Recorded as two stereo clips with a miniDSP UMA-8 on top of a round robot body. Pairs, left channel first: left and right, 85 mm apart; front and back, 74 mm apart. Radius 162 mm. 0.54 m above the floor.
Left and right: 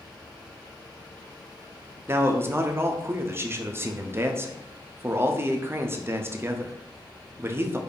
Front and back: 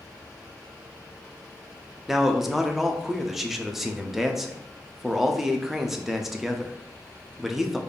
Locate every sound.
2.1 s a man speaking: 100° right, 0.7 m